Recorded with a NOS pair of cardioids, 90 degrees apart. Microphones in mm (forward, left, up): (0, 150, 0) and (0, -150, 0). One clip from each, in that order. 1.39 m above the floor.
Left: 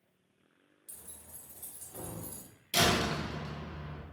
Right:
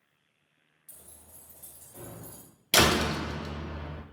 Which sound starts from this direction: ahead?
Keys jangling, at 0.9 s.